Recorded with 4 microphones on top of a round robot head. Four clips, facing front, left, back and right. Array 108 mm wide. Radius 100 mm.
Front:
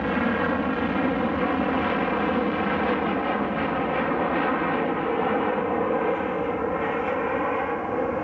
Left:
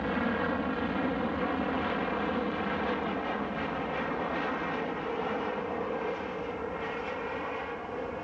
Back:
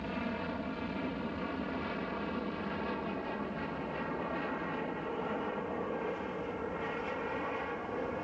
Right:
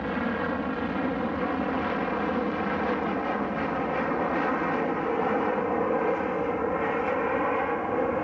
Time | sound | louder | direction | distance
0.0 | an aircraft | right 2 dB, front 14 dB | 5° right | ?